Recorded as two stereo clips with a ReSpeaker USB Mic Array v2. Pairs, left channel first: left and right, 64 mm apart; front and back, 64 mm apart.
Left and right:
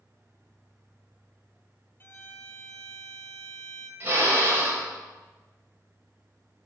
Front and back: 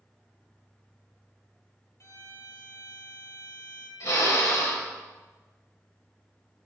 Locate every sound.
2.0 s a violin: 40° left, 1.4 m
4.0 s a drill: 35° right, 5.5 m